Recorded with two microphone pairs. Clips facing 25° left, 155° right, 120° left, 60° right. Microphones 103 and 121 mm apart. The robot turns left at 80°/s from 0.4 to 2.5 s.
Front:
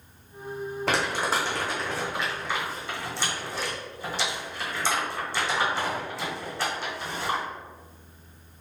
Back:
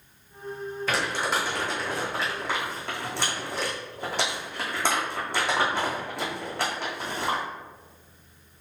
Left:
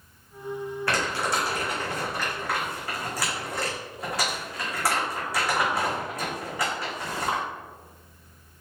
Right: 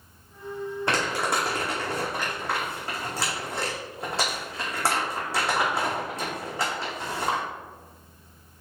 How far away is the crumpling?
About 2 m.